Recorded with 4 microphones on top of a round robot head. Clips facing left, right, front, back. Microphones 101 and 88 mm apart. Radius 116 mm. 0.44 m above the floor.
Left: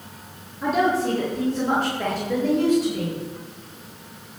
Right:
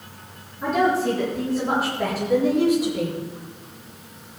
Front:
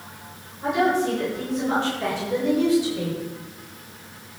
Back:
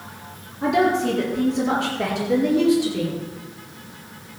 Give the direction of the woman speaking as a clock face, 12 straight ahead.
6 o'clock.